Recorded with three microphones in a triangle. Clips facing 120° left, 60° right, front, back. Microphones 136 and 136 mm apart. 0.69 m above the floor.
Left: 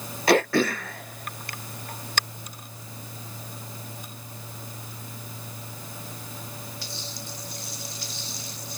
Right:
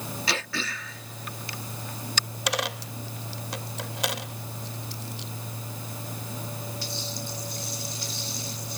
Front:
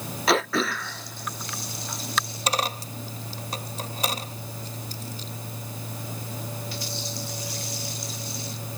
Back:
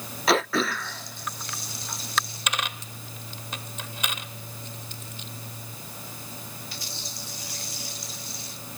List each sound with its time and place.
0.3 s throat clearing: 90° left
2.5 s a dropped coin: 55° right